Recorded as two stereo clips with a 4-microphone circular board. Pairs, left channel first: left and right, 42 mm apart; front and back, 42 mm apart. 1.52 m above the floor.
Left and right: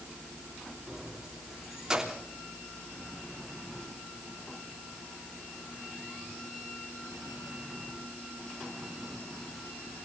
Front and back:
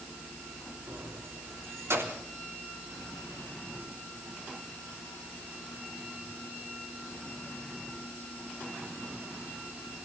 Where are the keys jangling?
165° right, 3 m.